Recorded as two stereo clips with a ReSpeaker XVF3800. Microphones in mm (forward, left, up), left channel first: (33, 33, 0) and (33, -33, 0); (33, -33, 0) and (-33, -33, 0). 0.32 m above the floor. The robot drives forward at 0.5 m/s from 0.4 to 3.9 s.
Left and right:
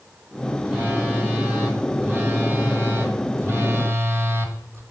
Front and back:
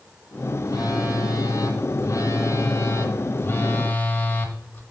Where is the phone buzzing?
20° right, 2.5 m; by 4.8 s 55° right, 1.4 m.